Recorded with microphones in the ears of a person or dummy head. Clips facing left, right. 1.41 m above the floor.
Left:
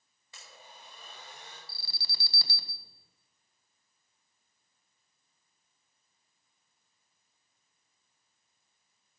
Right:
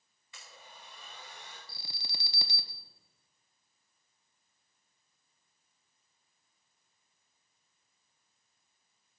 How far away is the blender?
About 4.5 m.